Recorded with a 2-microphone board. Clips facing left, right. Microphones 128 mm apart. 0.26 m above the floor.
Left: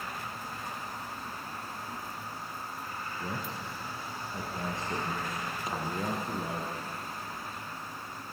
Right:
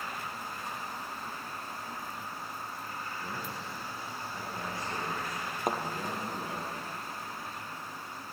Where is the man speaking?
25° left (ahead or behind), 4.5 m.